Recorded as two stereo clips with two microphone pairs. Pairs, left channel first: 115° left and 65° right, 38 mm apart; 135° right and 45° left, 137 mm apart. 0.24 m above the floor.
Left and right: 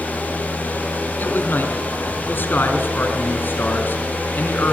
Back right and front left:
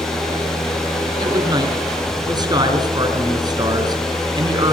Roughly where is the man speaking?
Left.